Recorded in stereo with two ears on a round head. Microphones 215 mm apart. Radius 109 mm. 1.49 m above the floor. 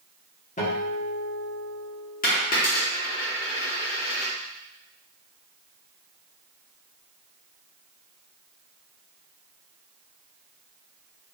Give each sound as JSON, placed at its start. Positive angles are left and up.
{"t": 0.6, "sound": "a guitar", "side_deg": 35, "distance_m": 1.3}
{"t": 2.2, "sound": "a dropped coin", "side_deg": 35, "distance_m": 1.2}